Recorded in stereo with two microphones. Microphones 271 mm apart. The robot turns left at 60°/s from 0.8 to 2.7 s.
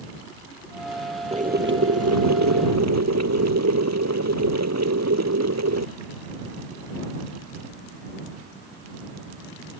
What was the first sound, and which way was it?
Boiling, 20° right.